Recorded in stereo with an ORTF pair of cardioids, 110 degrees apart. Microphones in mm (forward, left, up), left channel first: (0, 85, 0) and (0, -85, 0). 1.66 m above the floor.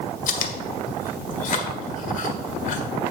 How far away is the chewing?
About 1.4 m.